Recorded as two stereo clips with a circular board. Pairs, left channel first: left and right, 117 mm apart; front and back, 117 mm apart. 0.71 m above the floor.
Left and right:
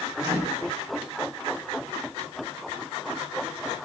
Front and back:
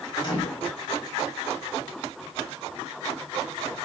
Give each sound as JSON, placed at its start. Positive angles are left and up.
{"t": 0.2, "sound": "a microwave", "azimuth_deg": -45, "distance_m": 2.0}